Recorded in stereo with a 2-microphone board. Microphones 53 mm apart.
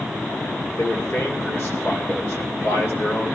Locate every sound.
0.8 s a man speaking: 50° left (ahead or behind), 2.5 m